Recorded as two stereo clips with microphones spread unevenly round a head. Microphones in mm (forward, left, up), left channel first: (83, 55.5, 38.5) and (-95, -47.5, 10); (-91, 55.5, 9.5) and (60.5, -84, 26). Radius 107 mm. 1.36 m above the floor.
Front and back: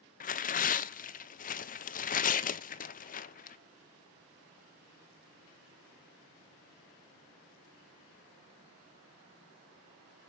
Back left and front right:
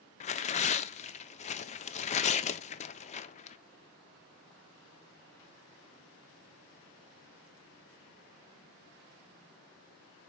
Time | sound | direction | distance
0.2 | tearing paper | 85° left | 0.5 m